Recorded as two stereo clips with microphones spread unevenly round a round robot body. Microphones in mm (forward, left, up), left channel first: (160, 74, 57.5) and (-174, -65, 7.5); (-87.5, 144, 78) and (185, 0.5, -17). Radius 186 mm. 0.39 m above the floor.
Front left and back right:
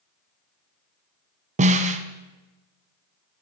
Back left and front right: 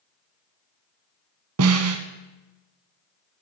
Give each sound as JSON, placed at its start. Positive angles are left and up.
{"t": 1.6, "sound": "a snare drum", "azimuth_deg": -85, "distance_m": 0.5}